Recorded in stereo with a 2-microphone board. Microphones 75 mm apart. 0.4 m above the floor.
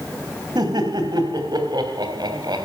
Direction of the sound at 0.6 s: 60° right (ahead or behind).